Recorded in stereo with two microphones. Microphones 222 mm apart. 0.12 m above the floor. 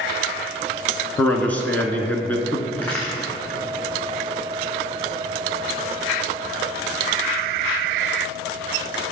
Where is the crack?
10° left (ahead or behind), 3.5 m.